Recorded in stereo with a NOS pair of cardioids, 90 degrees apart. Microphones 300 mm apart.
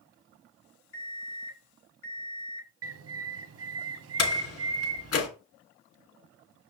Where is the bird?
50° right, 1.0 m.